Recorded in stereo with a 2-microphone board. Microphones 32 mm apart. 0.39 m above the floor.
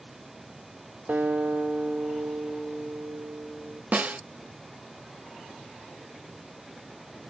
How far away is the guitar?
About 1.8 m.